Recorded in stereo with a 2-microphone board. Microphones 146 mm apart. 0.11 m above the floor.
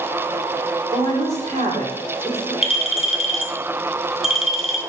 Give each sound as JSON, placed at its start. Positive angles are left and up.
{"t": 0.9, "sound": "a woman speaking", "side_deg": -50, "distance_m": 4.5}
{"t": 2.6, "sound": "a clink", "side_deg": -5, "distance_m": 2.5}